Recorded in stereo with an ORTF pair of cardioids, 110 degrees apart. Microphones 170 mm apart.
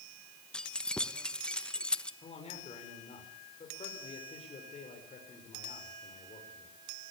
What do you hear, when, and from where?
0.5 s keys jangling: 5° left, 1.1 m
2.2 s a man speaking: 35° left, 5.5 m